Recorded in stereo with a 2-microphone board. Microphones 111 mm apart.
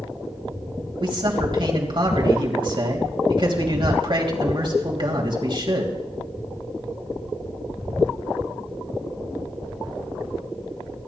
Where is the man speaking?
45° right (ahead or behind), 3 m.